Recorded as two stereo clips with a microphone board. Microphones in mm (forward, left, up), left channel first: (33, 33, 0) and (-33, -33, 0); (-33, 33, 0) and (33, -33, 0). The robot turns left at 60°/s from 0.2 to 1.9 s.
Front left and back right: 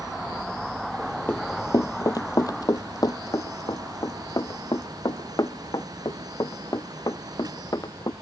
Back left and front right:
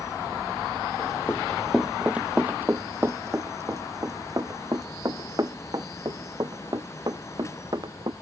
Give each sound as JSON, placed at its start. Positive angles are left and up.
{"t": 1.3, "sound": "running footsteps", "azimuth_deg": 90}